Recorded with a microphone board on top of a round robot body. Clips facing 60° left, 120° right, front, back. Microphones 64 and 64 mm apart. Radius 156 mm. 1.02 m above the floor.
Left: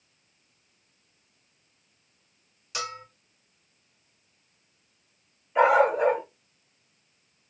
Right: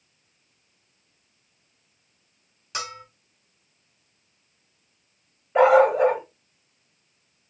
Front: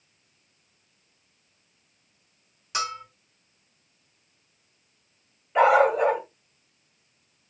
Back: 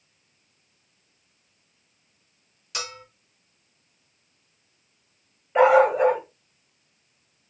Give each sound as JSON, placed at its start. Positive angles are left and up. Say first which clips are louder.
{"t": 2.7, "sound": "a bell", "louder": "right 1 dB, front 6 dB", "azimuth_deg": -65, "distance_m": 1.8}
{"t": 5.5, "sound": "a dog barking", "louder": "right 4 dB, back 2 dB", "azimuth_deg": -105, "distance_m": 1.6}